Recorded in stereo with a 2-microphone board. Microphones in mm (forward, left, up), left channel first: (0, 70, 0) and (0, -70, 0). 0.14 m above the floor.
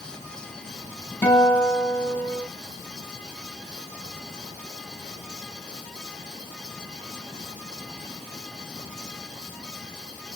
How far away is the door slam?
No door slam in this recording.